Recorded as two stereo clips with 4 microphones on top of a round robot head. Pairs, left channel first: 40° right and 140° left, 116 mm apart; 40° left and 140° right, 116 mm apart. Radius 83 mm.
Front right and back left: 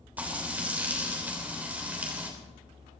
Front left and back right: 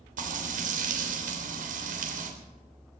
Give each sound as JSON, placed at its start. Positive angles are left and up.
{"t": 0.2, "sound": "frying", "azimuth_deg": -140, "distance_m": 3.0}